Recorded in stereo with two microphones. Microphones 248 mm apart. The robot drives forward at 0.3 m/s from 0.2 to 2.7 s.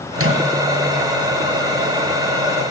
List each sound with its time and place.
0.1 s a microwave: 60° right (ahead or behind), 5 m; by 0.4 s 65° right (ahead or behind), 5 m